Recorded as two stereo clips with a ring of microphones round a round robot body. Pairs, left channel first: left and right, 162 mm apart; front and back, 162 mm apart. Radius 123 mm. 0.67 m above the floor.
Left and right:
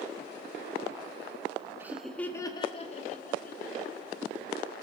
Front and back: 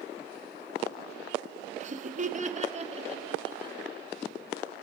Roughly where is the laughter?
Behind.